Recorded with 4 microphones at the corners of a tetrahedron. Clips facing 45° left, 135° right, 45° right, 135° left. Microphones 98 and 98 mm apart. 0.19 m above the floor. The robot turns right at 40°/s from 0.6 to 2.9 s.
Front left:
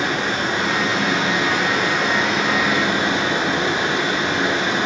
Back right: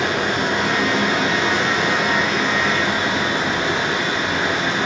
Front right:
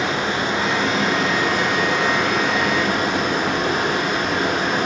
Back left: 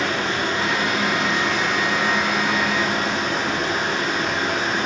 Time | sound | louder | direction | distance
0.0 | running water | back right 1 dB, front right 1 dB | 120° right | 0.9 m